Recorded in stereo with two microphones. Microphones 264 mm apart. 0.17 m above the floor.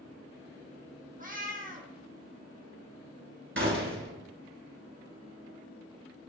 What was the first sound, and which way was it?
A cat meowing, 35° right (ahead or behind).